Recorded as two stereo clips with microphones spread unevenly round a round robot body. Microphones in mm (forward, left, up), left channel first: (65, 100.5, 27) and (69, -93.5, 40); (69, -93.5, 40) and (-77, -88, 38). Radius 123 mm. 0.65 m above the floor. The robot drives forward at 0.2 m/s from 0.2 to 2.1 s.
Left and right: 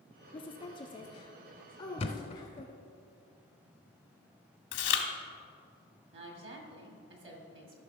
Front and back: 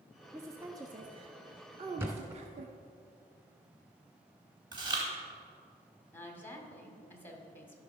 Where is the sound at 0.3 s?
120° left, 0.5 m; by 2.7 s 155° left, 0.7 m.